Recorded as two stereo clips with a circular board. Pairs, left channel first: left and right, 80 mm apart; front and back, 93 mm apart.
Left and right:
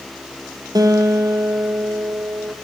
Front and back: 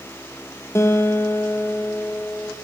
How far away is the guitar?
About 0.9 m.